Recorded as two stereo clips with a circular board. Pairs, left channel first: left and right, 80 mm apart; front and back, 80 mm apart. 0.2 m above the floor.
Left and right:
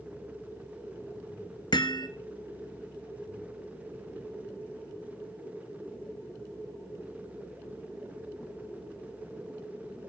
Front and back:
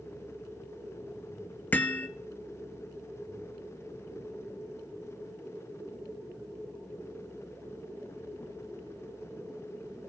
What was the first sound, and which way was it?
Hammering, 70° left.